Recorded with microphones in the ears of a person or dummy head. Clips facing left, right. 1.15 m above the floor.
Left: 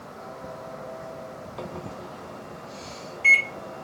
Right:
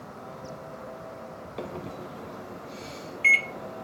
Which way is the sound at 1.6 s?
30° right (ahead or behind).